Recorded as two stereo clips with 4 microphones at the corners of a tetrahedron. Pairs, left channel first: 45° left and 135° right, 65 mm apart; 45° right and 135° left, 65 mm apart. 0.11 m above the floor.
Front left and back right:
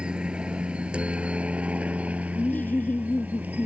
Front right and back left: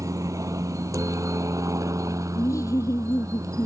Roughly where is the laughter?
Ahead.